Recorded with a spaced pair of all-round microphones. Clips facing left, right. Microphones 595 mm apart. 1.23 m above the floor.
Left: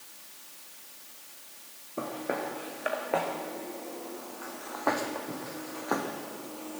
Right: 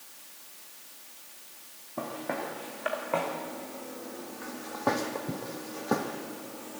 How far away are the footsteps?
About 4.5 m.